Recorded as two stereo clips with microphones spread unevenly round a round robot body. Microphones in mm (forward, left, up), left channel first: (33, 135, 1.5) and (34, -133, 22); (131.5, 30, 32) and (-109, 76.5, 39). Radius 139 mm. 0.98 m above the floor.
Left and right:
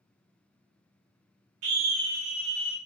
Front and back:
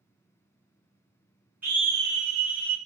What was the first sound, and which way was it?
A scream, 105° right.